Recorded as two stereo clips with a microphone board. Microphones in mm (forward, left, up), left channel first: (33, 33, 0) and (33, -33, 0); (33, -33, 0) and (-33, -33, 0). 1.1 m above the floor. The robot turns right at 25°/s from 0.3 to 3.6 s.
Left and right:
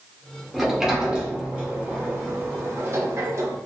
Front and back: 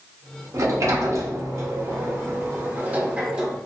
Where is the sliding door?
Straight behind, 0.6 m; by 3.6 s 105° right, 0.6 m.